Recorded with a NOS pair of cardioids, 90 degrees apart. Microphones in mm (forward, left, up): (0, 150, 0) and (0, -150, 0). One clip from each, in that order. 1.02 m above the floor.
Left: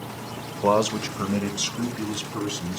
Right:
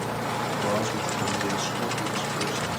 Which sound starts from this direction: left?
A man speaking, at 0.6 s.